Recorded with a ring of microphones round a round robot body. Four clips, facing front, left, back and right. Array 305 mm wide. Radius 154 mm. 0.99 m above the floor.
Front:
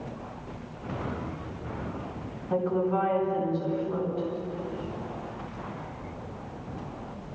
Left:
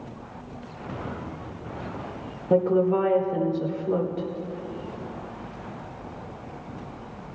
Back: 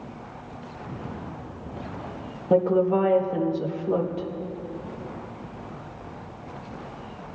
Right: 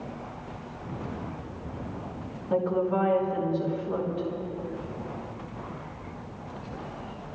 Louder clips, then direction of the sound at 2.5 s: Left 5 dB, back 6 dB; 140° left.